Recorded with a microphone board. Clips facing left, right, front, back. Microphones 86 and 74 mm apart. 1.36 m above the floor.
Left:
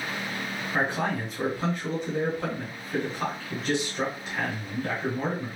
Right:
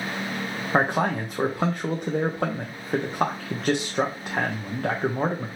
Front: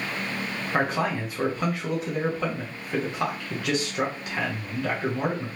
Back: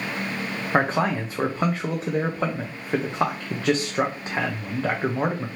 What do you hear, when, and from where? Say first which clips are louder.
0.7 s a man speaking: right 5 dB, back 4 dB; 120° right, 0.5 m